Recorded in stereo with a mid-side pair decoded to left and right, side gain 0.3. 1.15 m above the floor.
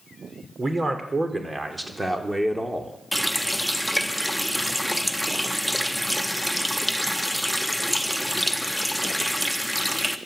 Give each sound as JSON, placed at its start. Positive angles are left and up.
{"t": 0.6, "sound": "a man speaking", "azimuth_deg": -35, "distance_m": 4.5}
{"t": 3.1, "sound": "a running tap", "azimuth_deg": 0, "distance_m": 1.4}